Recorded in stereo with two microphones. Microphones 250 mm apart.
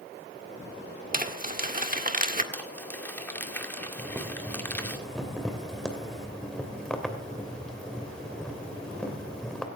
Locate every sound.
1.1 s crumpling: 35° right (ahead or behind), 1.7 m
2.5 s crumpling: 10° left (ahead or behind), 2 m
4.0 s boiling: 5° left (ahead or behind), 2.5 m